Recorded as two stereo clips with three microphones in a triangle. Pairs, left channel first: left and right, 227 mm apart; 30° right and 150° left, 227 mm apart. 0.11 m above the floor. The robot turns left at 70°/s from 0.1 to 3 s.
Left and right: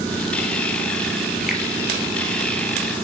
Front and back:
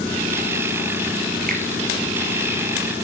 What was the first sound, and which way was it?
A finger snap, 175° right.